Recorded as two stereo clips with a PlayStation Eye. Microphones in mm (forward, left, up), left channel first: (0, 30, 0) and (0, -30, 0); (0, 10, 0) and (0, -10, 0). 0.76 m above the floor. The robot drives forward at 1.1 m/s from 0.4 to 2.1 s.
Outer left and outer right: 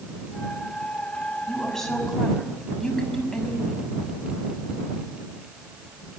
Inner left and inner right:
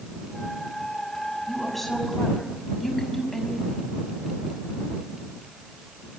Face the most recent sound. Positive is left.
turn(degrees=5)  # may be behind; listen again after turning